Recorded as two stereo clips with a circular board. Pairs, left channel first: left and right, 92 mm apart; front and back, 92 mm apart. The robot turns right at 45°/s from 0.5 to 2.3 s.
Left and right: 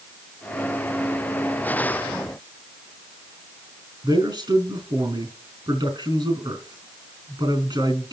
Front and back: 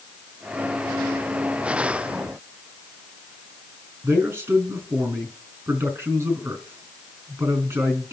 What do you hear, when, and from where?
4.0 s a man speaking: 115° right, 4 m